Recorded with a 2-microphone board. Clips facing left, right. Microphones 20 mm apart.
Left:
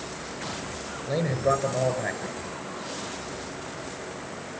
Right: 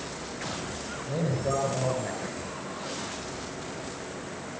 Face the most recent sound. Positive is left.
turn(degrees=45)  # may be behind; listen again after turning